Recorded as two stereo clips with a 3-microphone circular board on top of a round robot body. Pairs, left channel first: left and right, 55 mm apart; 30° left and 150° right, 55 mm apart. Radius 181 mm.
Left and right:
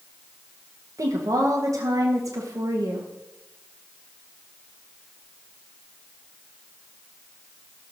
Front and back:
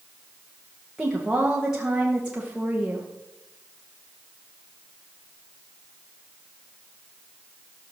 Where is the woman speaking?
70° right, 1.6 m.